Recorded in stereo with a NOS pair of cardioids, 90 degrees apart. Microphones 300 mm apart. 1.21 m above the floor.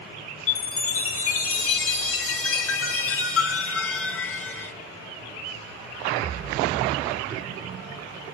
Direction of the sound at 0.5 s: 45° left.